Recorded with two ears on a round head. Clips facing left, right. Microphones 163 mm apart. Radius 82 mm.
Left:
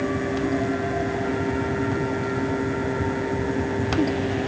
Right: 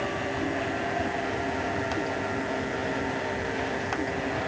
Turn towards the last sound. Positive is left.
No sound to turn to.